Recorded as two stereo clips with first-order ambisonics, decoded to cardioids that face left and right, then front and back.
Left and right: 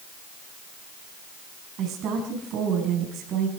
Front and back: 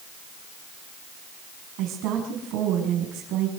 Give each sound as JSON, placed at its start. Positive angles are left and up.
{"t": 1.8, "sound": "a woman speaking", "azimuth_deg": -140, "distance_m": 5.5}